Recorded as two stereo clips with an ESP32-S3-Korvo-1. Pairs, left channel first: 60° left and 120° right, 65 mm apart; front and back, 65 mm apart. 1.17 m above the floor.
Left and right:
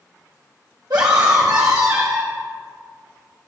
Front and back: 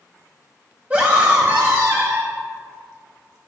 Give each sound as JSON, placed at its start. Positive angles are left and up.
{"t": 0.9, "sound": "a scream", "azimuth_deg": -115, "distance_m": 1.0}